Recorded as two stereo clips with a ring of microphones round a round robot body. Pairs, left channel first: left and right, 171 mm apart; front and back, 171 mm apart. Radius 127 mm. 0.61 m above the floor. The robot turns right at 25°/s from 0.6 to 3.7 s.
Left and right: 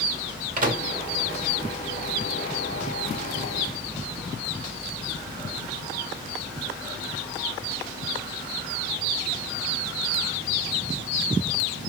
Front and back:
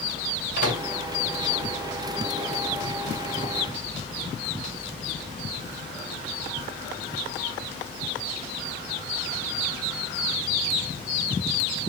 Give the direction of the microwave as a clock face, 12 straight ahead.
2 o'clock.